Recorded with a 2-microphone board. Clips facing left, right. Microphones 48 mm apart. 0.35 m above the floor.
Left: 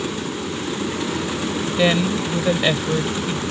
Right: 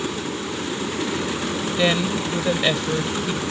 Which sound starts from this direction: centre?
A woman speaking, at 1.8 s.